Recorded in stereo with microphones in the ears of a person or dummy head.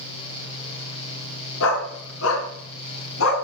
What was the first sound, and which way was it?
A dog barking, 75° left (ahead or behind).